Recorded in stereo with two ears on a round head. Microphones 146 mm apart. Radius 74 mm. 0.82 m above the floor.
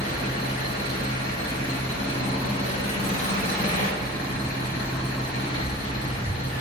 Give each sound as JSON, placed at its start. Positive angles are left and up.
{"t": 0.0, "sound": "an engine running", "side_deg": 40, "distance_m": 0.9}